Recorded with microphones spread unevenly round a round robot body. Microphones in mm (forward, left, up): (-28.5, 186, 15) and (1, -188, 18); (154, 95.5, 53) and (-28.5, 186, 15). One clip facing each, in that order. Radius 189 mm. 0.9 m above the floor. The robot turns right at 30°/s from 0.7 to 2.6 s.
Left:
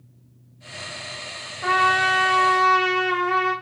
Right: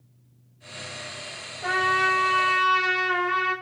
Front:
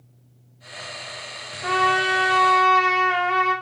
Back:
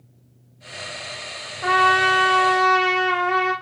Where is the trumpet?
150° left, 0.6 m; by 3.5 s straight behind, 0.6 m.